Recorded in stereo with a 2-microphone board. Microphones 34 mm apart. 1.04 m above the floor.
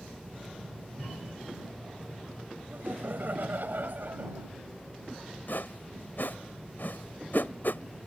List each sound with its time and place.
2.7 s laughter: 70° right (ahead or behind); by 4.5 s 60° right (ahead or behind)
5.5 s a whoosh: 75° left (ahead or behind)